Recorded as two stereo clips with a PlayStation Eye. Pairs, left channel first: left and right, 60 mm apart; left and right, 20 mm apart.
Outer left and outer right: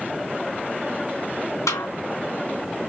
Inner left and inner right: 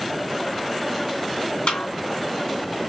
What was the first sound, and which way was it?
A snare drum, 70° left (ahead or behind).